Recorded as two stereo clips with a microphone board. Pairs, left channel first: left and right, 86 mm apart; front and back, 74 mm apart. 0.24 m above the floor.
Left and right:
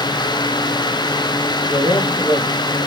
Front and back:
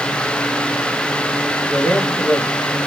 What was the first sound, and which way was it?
A man speaking, 80° left.